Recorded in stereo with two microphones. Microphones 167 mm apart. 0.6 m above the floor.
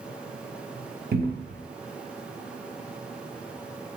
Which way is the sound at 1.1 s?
75° right (ahead or behind).